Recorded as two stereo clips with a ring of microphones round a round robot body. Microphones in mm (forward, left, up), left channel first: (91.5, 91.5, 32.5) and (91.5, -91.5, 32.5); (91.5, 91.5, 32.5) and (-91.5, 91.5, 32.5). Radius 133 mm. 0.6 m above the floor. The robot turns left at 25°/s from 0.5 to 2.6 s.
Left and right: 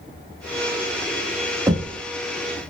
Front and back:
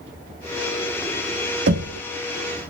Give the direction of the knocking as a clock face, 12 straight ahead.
5 o'clock.